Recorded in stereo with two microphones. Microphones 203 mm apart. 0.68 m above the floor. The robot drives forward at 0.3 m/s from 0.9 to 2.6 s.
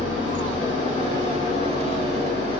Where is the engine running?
70° left (ahead or behind), 1.1 m; by 2.6 s 50° left (ahead or behind), 1.3 m.